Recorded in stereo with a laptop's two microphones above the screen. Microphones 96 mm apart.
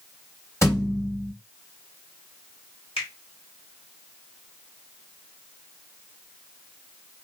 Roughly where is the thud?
Left.